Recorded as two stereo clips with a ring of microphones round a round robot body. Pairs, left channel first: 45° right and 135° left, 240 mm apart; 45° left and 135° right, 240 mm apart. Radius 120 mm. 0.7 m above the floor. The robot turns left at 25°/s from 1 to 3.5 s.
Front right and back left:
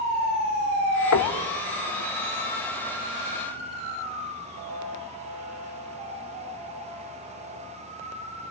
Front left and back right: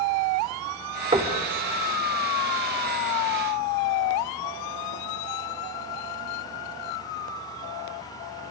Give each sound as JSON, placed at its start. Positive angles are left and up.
{"t": 1.1, "sound": "knocking", "azimuth_deg": -65, "distance_m": 1.1}